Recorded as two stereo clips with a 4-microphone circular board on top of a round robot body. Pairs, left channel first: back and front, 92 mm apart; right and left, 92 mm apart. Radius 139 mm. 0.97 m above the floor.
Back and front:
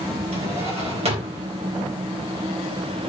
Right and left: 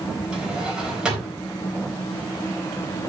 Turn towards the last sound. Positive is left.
turn(degrees=10)